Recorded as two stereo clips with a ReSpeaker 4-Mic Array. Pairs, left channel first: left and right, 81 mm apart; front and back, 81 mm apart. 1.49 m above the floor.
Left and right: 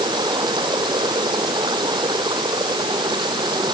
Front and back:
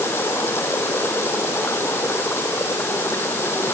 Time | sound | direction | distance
0.0 | running water | 60° right | ?